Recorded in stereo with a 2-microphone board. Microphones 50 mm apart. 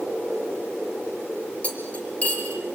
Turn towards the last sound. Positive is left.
turn(degrees=25)  # may be behind; listen again after turning